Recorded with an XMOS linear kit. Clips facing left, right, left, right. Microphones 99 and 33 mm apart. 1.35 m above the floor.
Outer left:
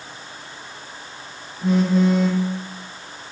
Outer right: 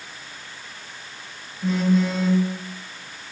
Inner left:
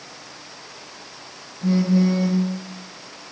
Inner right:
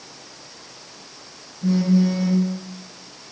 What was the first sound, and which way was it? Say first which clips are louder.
A phone buzzing: outer left 3 dB, even; 40° left (ahead or behind).